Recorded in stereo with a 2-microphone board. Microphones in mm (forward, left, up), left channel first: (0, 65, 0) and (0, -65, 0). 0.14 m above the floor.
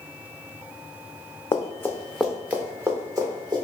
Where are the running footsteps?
35° left (ahead or behind), 0.5 m; by 3.6 s 30° right (ahead or behind), 1.4 m.